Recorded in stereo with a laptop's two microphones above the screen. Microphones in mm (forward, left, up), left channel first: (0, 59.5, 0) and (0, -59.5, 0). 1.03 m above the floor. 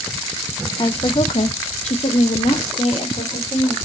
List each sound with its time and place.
0.8 s a woman speaking: 35° left (ahead or behind), 0.5 m; by 3.8 s 60° left (ahead or behind), 1.8 m